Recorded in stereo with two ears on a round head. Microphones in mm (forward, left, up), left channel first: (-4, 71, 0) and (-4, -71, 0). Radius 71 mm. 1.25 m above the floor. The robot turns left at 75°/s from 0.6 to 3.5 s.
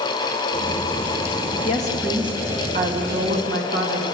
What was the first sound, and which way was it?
A woman speaking, 35° left.